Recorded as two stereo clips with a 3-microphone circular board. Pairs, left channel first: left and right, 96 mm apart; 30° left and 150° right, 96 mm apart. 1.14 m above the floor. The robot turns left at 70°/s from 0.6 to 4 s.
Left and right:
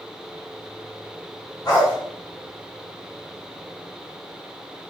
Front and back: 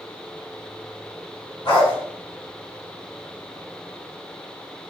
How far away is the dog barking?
About 2.5 m.